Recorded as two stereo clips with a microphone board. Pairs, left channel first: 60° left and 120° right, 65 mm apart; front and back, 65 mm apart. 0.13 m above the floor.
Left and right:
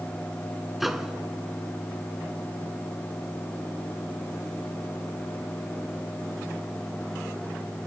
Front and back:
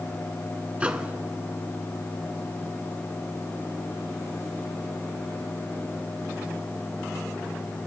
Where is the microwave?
160° left, 1.0 m.